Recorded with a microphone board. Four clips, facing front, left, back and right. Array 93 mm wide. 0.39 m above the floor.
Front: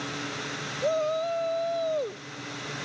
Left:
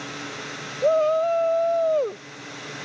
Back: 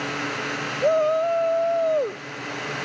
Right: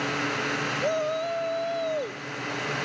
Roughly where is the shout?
Behind left.